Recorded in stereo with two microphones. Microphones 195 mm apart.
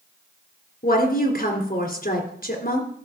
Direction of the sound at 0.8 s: 50° left (ahead or behind).